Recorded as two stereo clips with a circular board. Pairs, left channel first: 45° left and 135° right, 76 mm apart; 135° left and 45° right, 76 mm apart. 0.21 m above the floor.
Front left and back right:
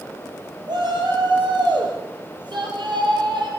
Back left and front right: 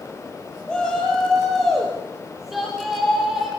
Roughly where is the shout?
Behind right.